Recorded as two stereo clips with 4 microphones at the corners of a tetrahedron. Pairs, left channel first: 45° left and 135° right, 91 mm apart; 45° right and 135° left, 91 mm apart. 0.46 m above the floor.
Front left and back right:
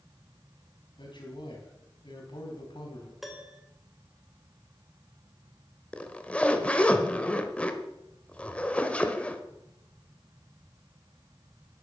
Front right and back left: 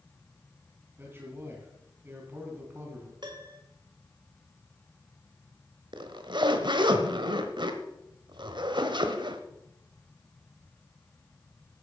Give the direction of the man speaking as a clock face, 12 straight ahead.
10 o'clock.